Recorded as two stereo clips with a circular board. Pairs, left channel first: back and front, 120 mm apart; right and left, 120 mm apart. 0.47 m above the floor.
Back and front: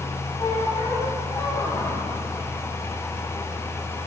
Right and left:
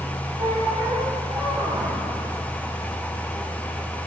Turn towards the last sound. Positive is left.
turn(degrees=135)